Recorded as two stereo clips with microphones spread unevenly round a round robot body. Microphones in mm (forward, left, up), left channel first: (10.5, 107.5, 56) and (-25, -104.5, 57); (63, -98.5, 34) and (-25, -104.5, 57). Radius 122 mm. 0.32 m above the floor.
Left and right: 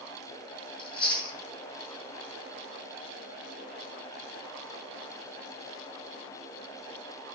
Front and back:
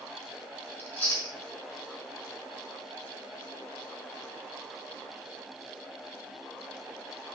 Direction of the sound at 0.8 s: 25° left.